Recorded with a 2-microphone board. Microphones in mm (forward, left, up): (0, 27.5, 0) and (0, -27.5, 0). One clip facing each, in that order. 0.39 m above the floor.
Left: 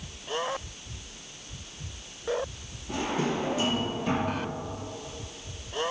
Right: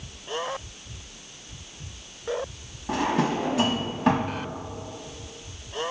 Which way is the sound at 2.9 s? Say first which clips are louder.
Right 5 dB; 75° right (ahead or behind).